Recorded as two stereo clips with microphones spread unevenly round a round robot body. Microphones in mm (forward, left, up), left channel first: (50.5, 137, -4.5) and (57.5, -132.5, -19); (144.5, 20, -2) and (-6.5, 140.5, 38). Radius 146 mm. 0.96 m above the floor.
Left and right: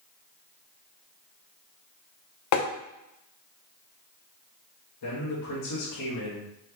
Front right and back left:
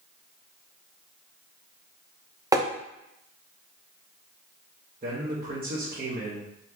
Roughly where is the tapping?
Left.